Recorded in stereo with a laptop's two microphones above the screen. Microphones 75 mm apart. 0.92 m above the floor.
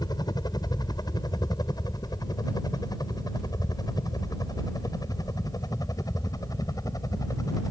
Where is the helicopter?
65° left (ahead or behind); by 7.7 s 55° left (ahead or behind).